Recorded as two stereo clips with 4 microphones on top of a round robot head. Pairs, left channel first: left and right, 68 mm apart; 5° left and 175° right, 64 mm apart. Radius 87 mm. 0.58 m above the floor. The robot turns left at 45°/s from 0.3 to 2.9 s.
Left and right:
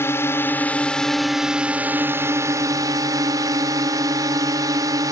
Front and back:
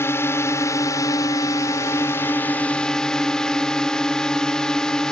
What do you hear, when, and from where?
0.0 s a drone: 45° left; by 5.1 s 75° right